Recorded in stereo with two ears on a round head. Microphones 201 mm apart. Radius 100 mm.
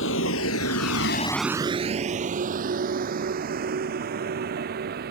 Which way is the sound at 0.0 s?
65° left (ahead or behind).